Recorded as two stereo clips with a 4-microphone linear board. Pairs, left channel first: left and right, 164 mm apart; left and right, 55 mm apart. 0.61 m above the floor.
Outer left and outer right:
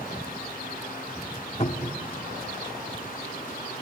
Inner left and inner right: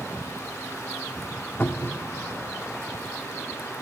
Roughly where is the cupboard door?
Left.